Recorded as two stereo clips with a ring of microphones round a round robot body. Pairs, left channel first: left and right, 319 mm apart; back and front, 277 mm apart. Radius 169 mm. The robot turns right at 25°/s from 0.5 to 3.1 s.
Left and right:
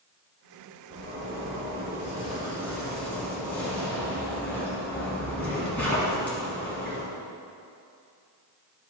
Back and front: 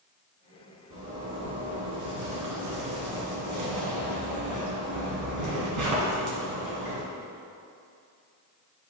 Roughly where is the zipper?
Ahead right.